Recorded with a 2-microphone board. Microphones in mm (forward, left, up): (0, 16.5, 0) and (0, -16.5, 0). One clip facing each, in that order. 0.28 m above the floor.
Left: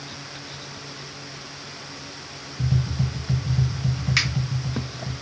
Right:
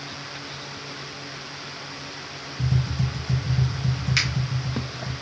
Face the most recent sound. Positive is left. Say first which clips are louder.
# left 1 dB
turn(degrees=0)  # may be behind; listen again after turning